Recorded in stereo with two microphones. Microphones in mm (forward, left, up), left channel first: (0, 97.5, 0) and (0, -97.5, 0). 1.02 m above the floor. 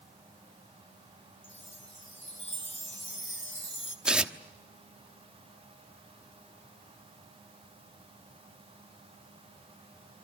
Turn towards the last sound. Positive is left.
turn(degrees=-5)  # may be behind; listen again after turning